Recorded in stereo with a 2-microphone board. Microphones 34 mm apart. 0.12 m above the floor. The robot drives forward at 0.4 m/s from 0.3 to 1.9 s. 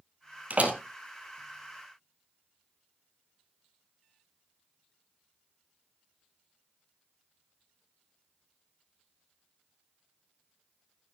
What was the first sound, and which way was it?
A door slam, 45° right (ahead or behind).